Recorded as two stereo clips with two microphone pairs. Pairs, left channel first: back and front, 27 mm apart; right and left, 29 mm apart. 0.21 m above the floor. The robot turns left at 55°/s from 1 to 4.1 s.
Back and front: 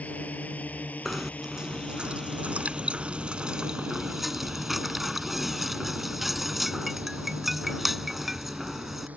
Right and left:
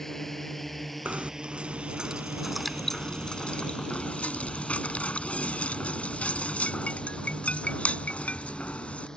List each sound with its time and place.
0.0 s a drone: 175° right; by 9.2 s 30° right
1.1 s knocking: 80° left; by 9.1 s 85° right